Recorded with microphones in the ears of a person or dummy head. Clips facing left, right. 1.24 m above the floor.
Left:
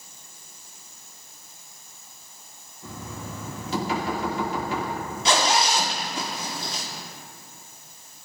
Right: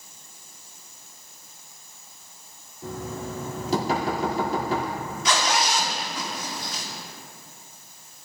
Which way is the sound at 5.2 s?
25° left (ahead or behind).